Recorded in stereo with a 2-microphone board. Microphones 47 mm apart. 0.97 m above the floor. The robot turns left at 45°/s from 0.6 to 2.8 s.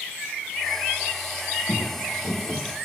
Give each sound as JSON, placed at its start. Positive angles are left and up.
{"t": 1.7, "sound": "footsteps", "side_deg": 60, "distance_m": 2.0}